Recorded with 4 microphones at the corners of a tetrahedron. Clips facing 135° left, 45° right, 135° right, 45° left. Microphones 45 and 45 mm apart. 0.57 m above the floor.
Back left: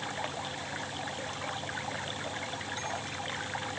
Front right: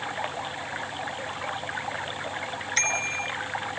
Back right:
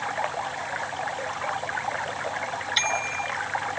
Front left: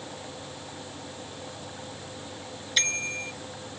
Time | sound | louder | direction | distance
0.0 | running water | front right 5 dB, back right 12 dB | 110° right | ?
2.8 | a bicycle bell | front right 9 dB, back right 2 dB | 45° right | ?